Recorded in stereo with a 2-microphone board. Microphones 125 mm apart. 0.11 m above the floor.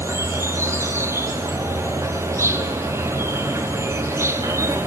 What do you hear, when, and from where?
0.0 s an insect: 20° right (ahead or behind), 0.9 m